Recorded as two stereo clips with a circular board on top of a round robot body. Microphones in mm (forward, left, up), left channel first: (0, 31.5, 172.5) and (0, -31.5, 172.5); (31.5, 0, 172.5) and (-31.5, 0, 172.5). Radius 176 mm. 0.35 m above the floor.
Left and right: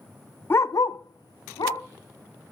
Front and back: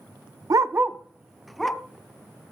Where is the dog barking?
150° left, 0.5 m; by 1.8 s 85° left, 1.4 m.